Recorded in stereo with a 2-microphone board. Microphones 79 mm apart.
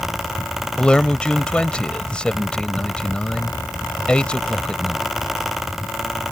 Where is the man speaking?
15° left (ahead or behind).